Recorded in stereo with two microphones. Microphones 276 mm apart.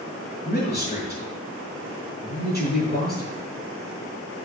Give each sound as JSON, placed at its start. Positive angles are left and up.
{"t": 0.5, "sound": "a man speaking", "side_deg": 35, "distance_m": 5.0}